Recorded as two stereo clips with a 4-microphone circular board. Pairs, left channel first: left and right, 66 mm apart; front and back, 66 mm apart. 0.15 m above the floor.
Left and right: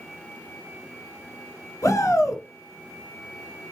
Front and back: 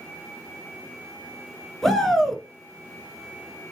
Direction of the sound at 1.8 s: 85° left.